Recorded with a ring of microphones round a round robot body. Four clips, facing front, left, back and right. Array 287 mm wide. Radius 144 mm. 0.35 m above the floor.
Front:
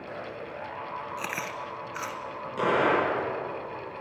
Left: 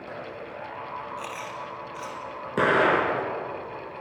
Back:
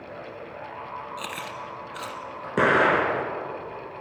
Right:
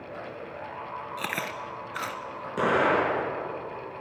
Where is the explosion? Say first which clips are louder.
Left 2 dB, back 4 dB; 155° left, 5 m.